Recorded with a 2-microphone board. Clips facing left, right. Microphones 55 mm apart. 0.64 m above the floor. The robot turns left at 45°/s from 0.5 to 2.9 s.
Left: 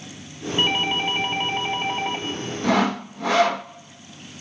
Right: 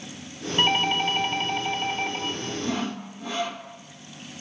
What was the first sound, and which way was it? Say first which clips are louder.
A doorbell: even; 170° right.